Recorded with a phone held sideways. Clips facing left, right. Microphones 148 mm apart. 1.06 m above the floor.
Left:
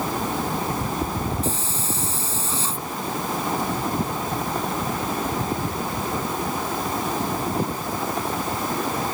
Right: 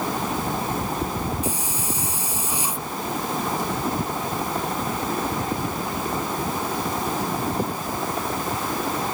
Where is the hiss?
15° right (ahead or behind).